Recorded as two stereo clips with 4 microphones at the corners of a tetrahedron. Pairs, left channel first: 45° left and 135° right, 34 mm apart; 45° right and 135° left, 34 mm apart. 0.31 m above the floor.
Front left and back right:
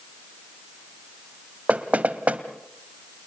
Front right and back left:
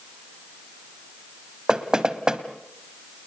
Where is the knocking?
160° right, 1.5 m.